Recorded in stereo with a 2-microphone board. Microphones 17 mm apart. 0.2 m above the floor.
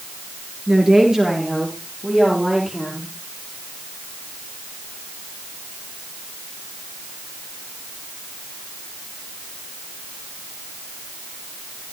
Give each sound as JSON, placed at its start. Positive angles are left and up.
{"t": 0.7, "sound": "a woman speaking", "side_deg": -30, "distance_m": 3.5}